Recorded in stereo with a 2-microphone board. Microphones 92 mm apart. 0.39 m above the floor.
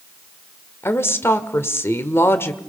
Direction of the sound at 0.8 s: 30° left (ahead or behind).